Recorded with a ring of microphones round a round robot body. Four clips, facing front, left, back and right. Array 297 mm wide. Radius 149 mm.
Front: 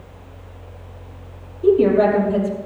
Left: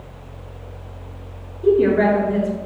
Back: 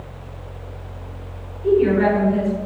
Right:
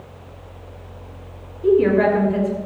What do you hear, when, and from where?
1.6 s a woman speaking: 25° left, 6.5 m